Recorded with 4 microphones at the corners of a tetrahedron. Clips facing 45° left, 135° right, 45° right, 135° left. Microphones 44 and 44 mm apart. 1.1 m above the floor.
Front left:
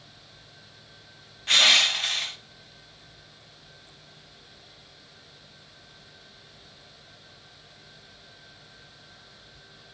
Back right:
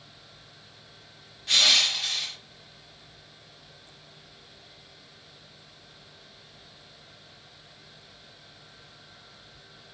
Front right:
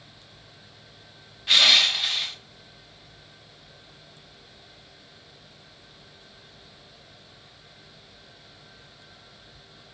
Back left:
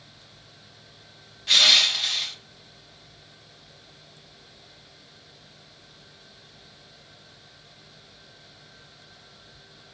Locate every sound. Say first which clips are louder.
1.5 s crushing: front left 3 dB, front right 1 dB; 30° left, 0.7 m